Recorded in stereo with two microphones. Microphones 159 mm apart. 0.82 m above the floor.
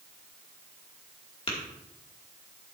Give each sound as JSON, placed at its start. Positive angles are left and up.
{"t": 1.5, "sound": "tapping", "side_deg": 40, "distance_m": 2.5}